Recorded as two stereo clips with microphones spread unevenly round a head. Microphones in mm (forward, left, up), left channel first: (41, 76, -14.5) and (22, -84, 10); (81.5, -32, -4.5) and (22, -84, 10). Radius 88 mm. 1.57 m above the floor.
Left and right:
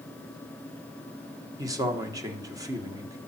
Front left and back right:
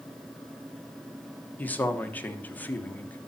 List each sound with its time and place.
1.6 s a man speaking: 30° right, 1.3 m